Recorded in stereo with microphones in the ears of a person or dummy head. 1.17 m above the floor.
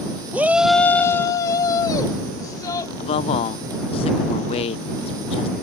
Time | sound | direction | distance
0.3 | a shout | 10° right (ahead or behind) | ?
3.0 | a man speaking | 25° left (ahead or behind) | ?